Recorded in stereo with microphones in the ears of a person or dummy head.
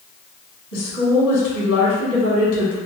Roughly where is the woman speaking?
Left.